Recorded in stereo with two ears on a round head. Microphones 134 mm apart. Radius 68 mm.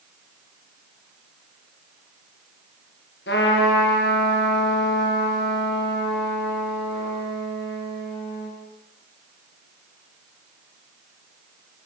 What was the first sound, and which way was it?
A trumpet, 80° left.